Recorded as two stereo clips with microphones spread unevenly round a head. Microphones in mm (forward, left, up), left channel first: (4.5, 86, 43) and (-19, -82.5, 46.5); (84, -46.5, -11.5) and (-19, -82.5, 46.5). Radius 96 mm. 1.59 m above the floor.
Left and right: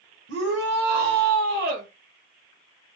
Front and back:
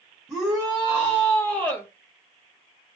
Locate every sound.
0.3 s a shout: 105° right, 1.2 m; by 1.9 s 65° right, 0.7 m